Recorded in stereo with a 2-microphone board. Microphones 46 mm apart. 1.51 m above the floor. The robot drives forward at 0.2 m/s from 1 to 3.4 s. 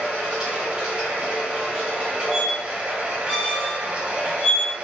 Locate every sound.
0.0 s running water: 20° right (ahead or behind), 1.0 m; by 4.8 s 30° right (ahead or behind), 0.6 m
2.3 s a squeak: 5° left (ahead or behind), 1.1 m